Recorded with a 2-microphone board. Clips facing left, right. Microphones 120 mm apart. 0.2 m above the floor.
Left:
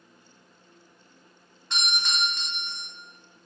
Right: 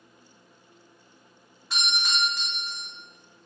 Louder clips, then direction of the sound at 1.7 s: Right 1 dB; 5° right (ahead or behind).